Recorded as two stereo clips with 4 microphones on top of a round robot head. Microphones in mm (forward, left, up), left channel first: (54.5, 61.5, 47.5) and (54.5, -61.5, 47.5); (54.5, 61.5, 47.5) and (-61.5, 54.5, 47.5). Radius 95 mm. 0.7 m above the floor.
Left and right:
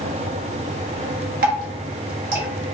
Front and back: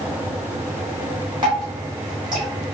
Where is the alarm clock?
No alarm clock in this recording.